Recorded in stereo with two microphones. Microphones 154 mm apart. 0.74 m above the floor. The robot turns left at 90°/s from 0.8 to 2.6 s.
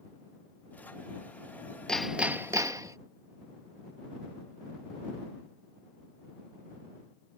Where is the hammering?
5° left (ahead or behind); by 3.0 s 20° right (ahead or behind).